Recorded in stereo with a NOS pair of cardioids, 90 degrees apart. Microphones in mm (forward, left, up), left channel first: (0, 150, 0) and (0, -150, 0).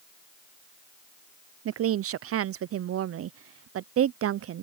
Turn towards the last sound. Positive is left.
turn(degrees=-50)